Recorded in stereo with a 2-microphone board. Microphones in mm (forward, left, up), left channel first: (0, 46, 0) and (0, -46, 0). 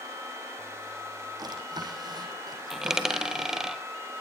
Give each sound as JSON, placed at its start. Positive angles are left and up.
{"t": 1.4, "sound": "a drawer", "side_deg": -50, "distance_m": 5.5}
{"t": 2.7, "sound": "a dropped coin", "side_deg": -5, "distance_m": 1.4}